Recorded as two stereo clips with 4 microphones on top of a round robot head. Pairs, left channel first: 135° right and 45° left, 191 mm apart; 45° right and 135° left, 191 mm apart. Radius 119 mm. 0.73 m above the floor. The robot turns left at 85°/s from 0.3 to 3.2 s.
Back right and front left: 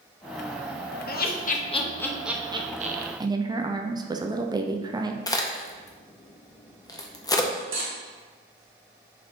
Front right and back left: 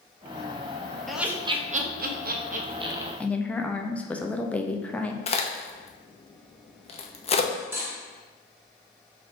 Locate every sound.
1.1 s laughter: 130° right, 0.8 m; by 3.1 s 55° left, 0.8 m
3.2 s a woman speaking: 25° left, 0.5 m
5.3 s a crack: 75° right, 0.7 m
7.5 s cutlery clinking: 60° left, 1.0 m